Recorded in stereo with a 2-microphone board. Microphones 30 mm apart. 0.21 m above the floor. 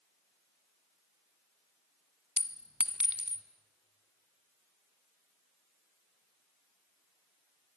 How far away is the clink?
About 1.2 m.